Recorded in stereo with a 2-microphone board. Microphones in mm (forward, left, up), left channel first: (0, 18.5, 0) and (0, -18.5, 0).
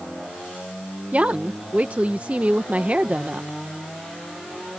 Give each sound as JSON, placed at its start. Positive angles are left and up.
{"t": 1.1, "sound": "a woman speaking", "side_deg": -40}